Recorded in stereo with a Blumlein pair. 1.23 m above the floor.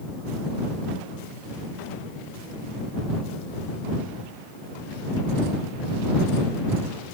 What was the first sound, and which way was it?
Only background noise.